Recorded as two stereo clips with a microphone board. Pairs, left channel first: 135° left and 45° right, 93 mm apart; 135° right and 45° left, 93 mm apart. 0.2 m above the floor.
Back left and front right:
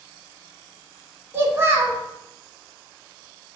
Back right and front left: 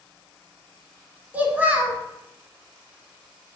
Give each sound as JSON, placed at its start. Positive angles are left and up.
{"t": 1.3, "sound": "a child speaking", "azimuth_deg": -15, "distance_m": 0.7}